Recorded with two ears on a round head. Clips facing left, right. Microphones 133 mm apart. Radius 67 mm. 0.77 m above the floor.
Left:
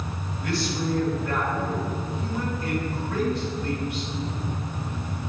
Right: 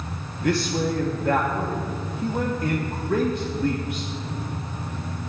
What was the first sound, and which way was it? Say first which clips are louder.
A man speaking: right 5 dB; 45° right (ahead or behind).